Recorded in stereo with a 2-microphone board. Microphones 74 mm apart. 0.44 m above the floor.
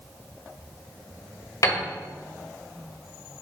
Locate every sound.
1.6 s a piano: 50° left (ahead or behind), 1.2 m